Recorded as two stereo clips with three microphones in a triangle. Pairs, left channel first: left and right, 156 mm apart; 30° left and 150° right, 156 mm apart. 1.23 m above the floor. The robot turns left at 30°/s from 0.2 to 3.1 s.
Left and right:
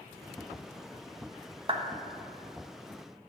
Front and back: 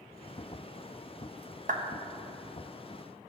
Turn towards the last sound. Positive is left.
turn(degrees=180)